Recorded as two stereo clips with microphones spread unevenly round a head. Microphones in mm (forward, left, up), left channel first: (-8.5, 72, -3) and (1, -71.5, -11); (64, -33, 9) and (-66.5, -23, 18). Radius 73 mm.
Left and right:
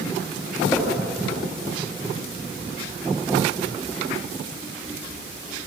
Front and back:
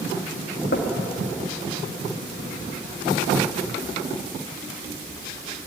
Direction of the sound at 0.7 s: 20° left.